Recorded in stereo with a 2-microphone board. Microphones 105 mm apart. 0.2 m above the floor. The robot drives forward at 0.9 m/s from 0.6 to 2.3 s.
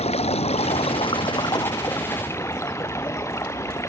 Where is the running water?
80° left, 0.8 m; by 3.9 s 25° left (ahead or behind), 1.8 m.